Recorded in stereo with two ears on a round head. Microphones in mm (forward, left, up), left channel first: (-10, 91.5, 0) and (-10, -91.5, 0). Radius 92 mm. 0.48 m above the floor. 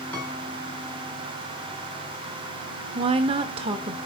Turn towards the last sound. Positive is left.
turn(degrees=-30)  # may be behind; listen again after turning